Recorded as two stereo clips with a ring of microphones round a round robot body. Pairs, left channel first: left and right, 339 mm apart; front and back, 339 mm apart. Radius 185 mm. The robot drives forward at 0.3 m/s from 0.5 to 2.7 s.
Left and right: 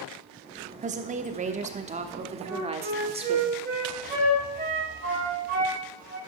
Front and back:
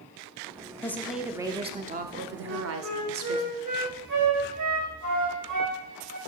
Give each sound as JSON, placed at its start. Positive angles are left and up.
{"t": 0.8, "sound": "a woman speaking", "azimuth_deg": -70, "distance_m": 0.7}
{"t": 2.5, "sound": "a flute", "azimuth_deg": -155, "distance_m": 2.5}